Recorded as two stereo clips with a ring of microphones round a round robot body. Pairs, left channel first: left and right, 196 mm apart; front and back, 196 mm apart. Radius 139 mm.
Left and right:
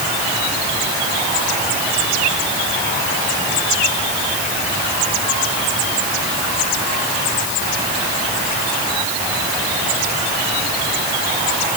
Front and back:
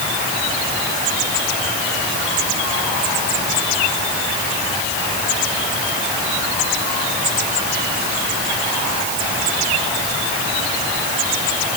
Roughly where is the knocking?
No knocking in this recording.